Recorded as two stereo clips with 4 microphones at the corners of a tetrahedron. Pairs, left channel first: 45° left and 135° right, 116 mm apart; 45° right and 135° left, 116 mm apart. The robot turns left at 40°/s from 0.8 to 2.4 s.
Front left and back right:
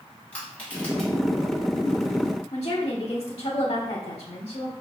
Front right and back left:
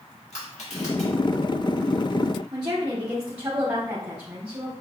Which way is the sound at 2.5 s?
80° left.